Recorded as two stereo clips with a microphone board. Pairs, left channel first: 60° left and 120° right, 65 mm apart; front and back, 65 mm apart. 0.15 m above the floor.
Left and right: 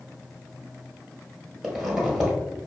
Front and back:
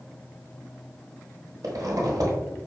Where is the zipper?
150° left, 1.2 m.